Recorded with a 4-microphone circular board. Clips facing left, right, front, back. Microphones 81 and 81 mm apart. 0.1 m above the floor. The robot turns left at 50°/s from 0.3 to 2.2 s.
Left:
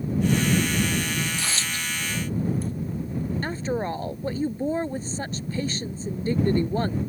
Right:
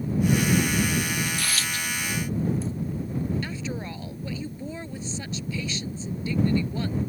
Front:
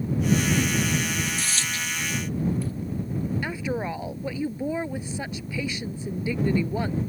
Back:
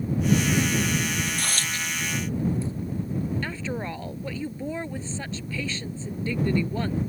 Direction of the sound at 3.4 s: 70° left.